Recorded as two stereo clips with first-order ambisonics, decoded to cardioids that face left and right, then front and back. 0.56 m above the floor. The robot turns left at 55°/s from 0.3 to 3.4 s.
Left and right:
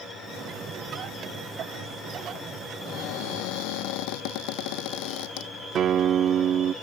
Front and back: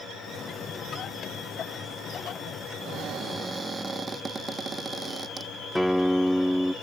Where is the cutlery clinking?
No cutlery clinking in this recording.